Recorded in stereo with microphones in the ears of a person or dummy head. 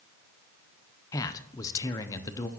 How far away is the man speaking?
About 0.6 m.